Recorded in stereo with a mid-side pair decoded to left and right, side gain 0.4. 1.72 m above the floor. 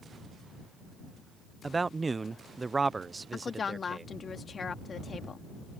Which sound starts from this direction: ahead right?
A man speaking, at 1.6 s.